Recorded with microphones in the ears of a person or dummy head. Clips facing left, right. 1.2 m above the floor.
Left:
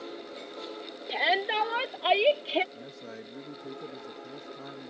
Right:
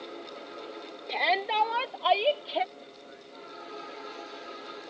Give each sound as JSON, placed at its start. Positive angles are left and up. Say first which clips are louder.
{"t": 1.1, "sound": "a shout", "louder": "even", "side_deg": 10}
{"t": 2.8, "sound": "a man speaking", "louder": "left 5 dB", "side_deg": 75}